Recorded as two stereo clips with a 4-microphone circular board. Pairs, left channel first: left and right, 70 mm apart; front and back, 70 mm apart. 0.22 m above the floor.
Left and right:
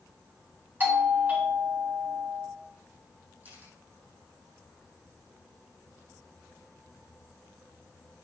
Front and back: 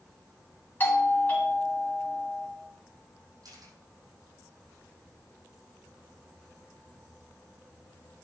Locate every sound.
0.8 s a doorbell: 45° right, 2.5 m
3.4 s a camera shutter: 155° right, 5 m